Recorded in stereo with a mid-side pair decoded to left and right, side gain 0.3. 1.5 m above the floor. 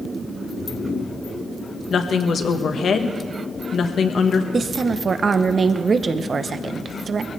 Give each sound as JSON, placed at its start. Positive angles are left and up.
{"t": 1.9, "sound": "a woman speaking", "azimuth_deg": 70, "distance_m": 1.5}
{"t": 4.5, "sound": "a woman speaking", "azimuth_deg": -55, "distance_m": 1.1}